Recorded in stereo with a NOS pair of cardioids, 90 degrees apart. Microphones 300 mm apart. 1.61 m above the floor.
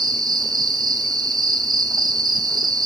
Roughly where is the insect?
Ahead.